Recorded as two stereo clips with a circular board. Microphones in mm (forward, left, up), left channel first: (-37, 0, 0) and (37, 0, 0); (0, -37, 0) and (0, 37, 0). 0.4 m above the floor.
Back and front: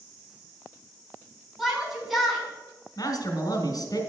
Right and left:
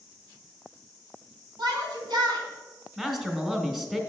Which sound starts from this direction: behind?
A man speaking, at 3.0 s.